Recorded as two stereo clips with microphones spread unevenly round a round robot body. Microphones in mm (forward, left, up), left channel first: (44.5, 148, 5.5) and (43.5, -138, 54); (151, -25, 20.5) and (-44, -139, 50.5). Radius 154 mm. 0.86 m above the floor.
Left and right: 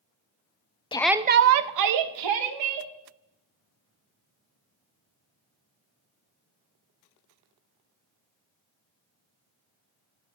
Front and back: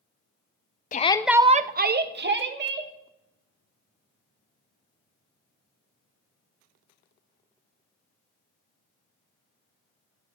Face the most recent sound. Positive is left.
turn(degrees=-110)